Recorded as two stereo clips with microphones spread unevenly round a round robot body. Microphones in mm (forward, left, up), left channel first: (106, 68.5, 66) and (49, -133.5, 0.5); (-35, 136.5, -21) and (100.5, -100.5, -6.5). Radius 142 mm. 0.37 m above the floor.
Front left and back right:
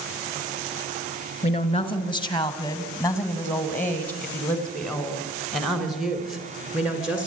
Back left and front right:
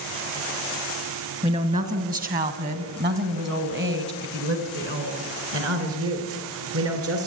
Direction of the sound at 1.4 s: 5° left.